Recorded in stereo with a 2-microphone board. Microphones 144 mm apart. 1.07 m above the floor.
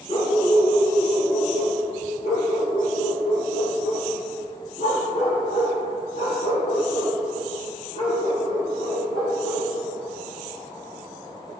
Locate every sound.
0.1 s a dog barking: 50° left (ahead or behind), 4 m; by 9.7 s 80° left, 13.5 m